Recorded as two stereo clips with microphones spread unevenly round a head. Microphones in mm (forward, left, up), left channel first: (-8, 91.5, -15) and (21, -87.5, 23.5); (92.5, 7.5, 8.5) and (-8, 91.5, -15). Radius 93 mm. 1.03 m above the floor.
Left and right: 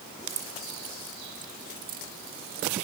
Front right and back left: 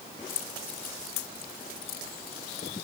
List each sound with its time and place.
0.3 s keys jangling: 20° right; by 2.8 s 45° right